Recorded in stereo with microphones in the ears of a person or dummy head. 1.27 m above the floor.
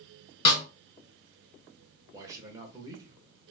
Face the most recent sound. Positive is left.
turn(degrees=-15)  # may be behind; listen again after turning